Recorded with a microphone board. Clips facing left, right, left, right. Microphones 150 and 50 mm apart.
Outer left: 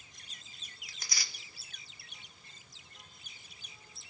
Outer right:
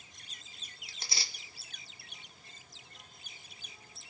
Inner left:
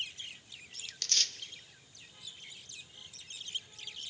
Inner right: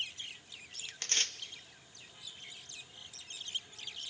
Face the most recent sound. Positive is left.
turn(degrees=-30)  # may be behind; listen again after turning